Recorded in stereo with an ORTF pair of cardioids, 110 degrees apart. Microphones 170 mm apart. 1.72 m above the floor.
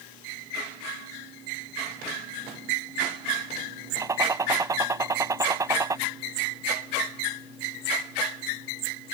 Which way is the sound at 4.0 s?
20° right.